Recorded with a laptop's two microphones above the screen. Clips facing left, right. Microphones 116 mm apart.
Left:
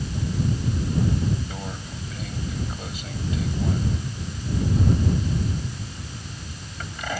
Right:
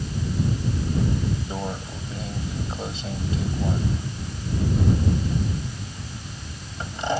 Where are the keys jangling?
I don't hear keys jangling.